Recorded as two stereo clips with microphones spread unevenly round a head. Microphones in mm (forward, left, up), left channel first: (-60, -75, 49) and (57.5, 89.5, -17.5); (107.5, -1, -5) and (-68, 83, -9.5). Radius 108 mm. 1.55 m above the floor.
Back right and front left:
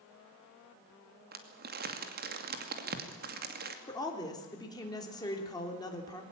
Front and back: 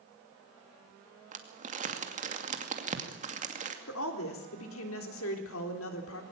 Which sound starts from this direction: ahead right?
A woman speaking, at 3.9 s.